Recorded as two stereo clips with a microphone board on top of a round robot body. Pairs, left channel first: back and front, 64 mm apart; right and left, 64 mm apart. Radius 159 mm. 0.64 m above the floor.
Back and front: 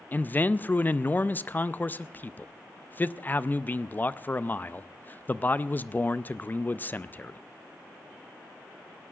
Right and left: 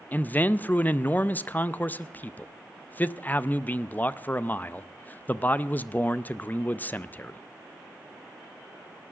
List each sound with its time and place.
0.1 s a man speaking: 140° right, 0.6 m